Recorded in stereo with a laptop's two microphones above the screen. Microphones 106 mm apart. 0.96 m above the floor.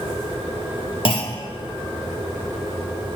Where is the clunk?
55° left (ahead or behind), 1.7 m.